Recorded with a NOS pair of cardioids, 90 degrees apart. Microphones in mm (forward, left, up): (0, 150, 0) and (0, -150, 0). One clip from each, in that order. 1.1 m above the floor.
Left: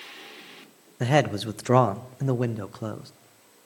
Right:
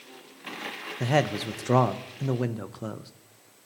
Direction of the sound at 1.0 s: 15° left.